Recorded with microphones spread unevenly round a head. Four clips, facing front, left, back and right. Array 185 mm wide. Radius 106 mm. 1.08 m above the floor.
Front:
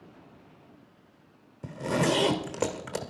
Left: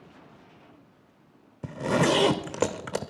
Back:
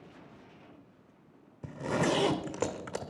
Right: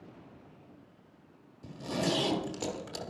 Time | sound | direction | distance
1.6 | a zipper | 75° left | 1.4 m